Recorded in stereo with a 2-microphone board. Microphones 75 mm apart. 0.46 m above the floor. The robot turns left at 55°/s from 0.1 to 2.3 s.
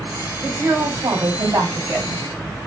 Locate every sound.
0.4 s a woman speaking: 50° right, 2.5 m; by 2.2 s 145° right, 2.5 m